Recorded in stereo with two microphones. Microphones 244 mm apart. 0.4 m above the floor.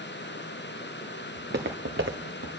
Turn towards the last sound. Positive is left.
turn(degrees=-65)  # may be behind; listen again after turning